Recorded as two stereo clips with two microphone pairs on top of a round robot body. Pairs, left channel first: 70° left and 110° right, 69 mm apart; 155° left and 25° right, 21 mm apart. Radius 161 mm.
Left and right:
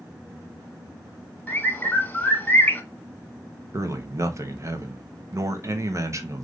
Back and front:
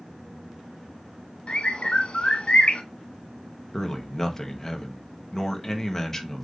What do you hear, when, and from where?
1.5 s a bird: 135° left, 1.3 m
3.7 s a man speaking: 135° right, 1.0 m